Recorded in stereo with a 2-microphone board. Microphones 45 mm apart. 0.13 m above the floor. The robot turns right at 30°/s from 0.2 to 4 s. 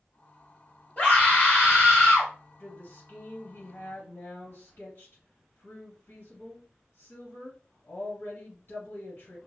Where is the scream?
35° left, 2.5 m; by 2.3 s 80° left, 2.5 m.